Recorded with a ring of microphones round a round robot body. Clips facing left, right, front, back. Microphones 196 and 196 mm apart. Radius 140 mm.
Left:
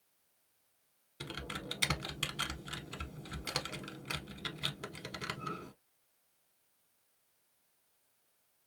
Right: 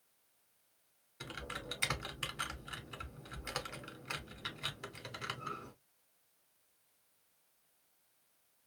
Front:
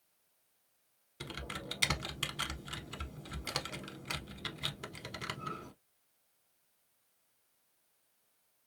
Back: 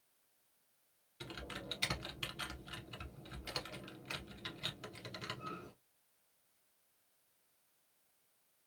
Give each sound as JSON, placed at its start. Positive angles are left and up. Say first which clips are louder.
{"t": 1.2, "sound": "typing on a keyboard", "louder": "left 3 dB, front 3 dB", "azimuth_deg": 35, "distance_m": 0.8}